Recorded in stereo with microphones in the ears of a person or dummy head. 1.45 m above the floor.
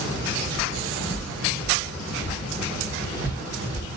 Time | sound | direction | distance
0.6 | footsteps | 5° left (ahead or behind) | 3.5 m